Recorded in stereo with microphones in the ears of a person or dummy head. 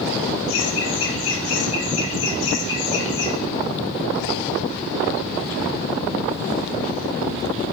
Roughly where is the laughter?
Left.